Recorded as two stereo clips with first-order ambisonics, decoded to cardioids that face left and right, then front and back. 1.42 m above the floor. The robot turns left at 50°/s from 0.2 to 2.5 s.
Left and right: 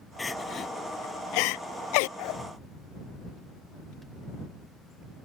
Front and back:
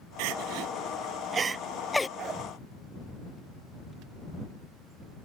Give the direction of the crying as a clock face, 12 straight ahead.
6 o'clock.